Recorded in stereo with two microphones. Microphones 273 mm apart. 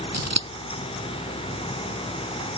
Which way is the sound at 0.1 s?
70° right (ahead or behind).